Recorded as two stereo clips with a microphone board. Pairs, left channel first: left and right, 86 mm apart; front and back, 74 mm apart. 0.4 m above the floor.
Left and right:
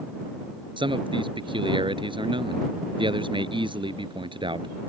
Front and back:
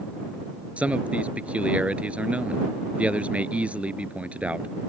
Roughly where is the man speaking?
Right.